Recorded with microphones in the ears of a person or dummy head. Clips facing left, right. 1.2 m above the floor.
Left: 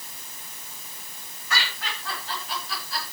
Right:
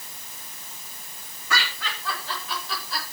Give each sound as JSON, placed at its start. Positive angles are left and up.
{"t": 1.5, "sound": "laughter", "side_deg": -75, "distance_m": 7.5}